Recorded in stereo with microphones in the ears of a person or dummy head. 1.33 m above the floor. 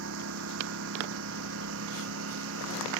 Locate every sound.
0.0 s a lawn mower: 75° right (ahead or behind)